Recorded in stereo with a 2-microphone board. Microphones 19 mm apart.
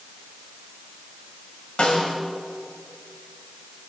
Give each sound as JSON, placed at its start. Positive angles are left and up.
{"t": 1.8, "sound": "a snare drum", "side_deg": 60, "distance_m": 1.9}